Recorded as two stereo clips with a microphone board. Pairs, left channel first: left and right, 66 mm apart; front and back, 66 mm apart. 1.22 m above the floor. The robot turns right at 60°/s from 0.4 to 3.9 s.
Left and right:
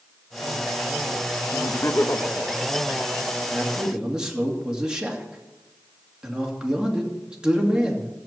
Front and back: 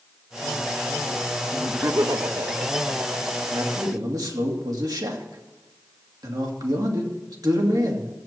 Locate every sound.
1.5 s laughter: 115° left, 0.9 m; by 3.4 s 130° right, 0.9 m
3.5 s a man speaking: 170° left, 2.5 m; by 8.1 s 170° right, 2.5 m